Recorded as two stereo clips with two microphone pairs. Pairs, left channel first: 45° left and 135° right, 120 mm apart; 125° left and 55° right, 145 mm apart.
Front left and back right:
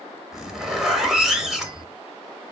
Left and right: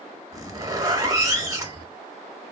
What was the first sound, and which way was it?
A zipper, 55° right.